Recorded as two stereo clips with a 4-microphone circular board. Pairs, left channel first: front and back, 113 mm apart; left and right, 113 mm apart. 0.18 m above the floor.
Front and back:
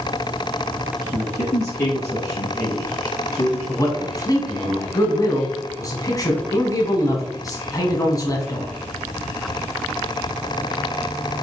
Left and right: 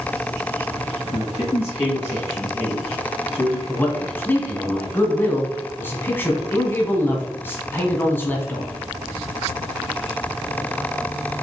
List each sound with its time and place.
1.1 s a man speaking: 40° left, 1.8 m
3.7 s a man speaking: 30° left, 1.2 m